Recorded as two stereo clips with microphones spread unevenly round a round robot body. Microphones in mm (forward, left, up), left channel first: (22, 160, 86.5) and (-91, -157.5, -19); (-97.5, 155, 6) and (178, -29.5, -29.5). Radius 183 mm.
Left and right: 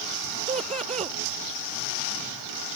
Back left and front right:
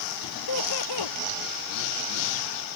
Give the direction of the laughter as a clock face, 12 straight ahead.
6 o'clock.